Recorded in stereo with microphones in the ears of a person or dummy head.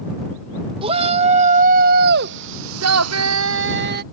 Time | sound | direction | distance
0.8 | a shout | 30° right (ahead or behind) | ?